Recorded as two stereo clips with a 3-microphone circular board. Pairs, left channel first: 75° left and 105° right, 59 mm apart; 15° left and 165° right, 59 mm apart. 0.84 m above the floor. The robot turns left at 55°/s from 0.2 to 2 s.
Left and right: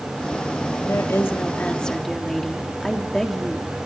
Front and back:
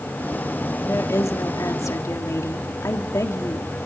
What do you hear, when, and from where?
0.8 s a woman speaking: 55° left, 1.7 m; by 3.7 s 10° right, 1.7 m